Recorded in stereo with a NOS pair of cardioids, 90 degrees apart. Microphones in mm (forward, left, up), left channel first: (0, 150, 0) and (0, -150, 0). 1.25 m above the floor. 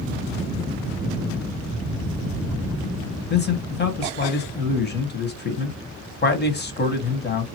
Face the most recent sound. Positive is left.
turn(degrees=35)